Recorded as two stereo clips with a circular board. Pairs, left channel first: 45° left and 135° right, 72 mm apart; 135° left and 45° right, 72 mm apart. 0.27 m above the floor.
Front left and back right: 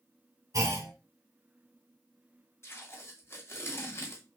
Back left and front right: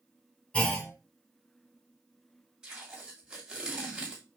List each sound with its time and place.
0.5 s a clunk: 155° right, 1.9 m
2.6 s tape being pulled: 25° left, 2 m